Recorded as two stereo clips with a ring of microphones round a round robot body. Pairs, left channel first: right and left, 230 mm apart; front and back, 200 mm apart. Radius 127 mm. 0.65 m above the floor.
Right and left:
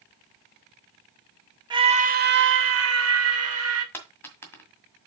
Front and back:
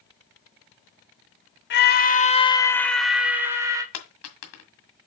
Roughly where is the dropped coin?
Ahead.